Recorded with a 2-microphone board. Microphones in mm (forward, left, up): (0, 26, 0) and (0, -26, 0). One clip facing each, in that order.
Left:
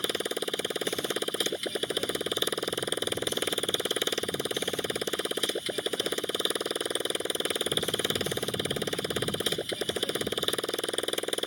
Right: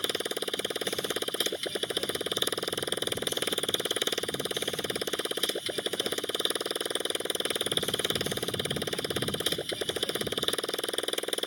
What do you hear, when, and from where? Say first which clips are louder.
0.0 s a motorcycle: left 1 dB; 5° left (ahead or behind)